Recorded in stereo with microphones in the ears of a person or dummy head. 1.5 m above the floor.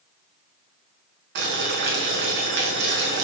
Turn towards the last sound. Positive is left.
turn(degrees=-60)  # may be behind; listen again after turning